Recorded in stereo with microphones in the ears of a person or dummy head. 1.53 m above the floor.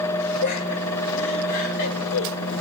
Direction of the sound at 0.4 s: 55° left (ahead or behind).